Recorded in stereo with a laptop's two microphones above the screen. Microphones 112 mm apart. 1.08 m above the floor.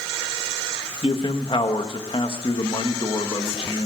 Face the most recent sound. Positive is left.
turn(degrees=50)  # may be behind; listen again after turning